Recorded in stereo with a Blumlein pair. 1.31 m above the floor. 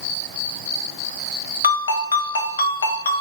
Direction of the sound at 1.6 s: 70° left.